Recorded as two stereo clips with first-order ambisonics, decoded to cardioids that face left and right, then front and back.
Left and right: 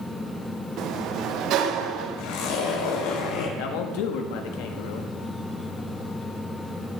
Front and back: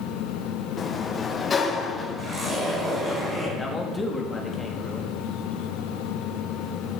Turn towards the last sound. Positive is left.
turn(degrees=80)